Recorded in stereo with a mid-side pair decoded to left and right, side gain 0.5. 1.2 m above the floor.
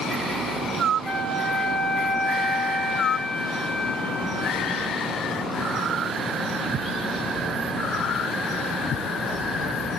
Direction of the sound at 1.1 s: 35° right.